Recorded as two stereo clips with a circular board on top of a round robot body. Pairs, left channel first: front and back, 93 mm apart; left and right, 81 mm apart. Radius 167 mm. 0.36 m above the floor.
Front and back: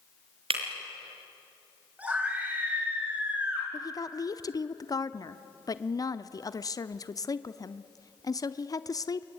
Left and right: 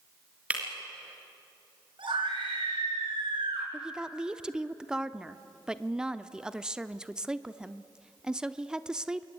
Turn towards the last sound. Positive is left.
turn(degrees=-15)